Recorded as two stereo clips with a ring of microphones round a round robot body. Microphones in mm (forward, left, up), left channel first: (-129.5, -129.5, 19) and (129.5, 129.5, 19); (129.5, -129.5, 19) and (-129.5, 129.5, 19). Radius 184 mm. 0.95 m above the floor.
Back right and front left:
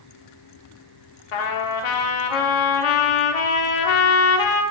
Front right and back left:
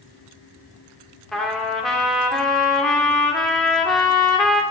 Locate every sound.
1.3 s a trumpet: 135° right, 1.2 m